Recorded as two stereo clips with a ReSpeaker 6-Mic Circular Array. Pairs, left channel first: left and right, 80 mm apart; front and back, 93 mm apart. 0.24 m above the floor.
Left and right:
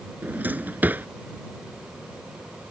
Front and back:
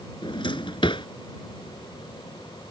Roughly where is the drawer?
Ahead right.